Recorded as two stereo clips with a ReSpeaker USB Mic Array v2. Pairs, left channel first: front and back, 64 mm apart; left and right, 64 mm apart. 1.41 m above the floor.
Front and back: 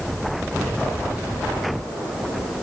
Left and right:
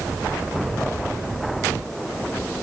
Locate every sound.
Only background noise.